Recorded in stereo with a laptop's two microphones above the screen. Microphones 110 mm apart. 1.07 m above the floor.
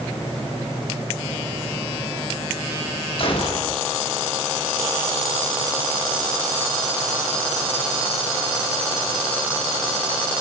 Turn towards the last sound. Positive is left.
turn(degrees=55)  # may be behind; listen again after turning